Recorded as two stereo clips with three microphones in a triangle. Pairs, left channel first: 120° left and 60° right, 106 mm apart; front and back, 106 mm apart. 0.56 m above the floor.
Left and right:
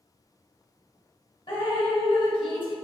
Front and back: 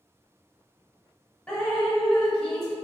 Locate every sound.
1.5 s dripping: 80° left, 0.7 m